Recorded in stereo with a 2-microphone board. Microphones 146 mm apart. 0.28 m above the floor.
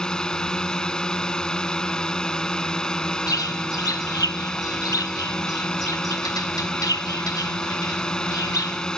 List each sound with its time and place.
0.0 s a drone: 5° left (ahead or behind)
3.3 s a bird: 25° left (ahead or behind)